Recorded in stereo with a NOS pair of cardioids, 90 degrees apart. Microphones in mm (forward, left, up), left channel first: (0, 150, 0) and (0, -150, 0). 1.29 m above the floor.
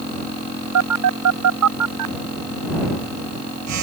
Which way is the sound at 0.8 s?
60° right.